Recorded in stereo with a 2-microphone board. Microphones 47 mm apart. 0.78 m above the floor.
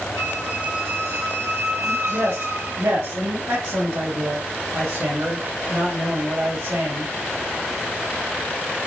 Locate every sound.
0.2 s a squeak: 85° right, 5.5 m
1.8 s a man speaking: 80° right, 3.5 m